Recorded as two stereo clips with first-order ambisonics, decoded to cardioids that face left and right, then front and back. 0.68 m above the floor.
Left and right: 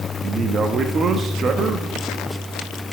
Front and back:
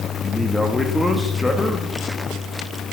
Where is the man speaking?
75° right, 0.7 m.